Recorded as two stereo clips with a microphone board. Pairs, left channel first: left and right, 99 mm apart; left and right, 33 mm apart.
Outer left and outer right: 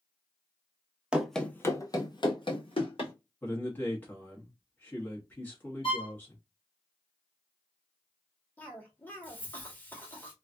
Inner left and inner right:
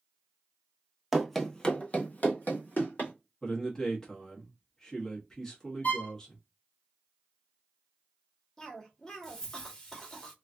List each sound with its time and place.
1.1 s running footsteps: 10° right (ahead or behind), 0.6 m; by 3.1 s 65° left (ahead or behind), 1.5 m
3.4 s a man speaking: 20° left (ahead or behind), 1.0 m
5.8 s a violin: 65° left (ahead or behind), 0.9 m
8.6 s a cough: 20° left (ahead or behind), 1.3 m